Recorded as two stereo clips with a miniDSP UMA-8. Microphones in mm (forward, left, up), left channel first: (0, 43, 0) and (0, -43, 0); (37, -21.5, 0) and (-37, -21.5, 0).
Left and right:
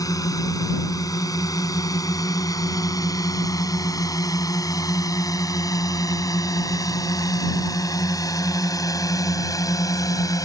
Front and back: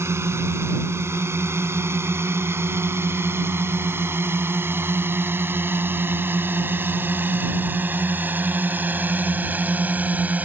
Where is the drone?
130° left; by 10.4 s 115° left.